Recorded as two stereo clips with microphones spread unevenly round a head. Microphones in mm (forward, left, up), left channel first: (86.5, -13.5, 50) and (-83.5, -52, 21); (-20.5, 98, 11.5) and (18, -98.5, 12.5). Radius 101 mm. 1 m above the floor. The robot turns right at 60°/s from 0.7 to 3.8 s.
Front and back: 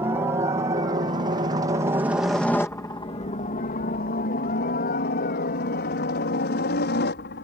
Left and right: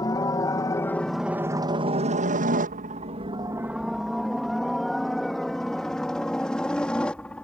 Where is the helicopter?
150° left; by 7.5 s 15° left.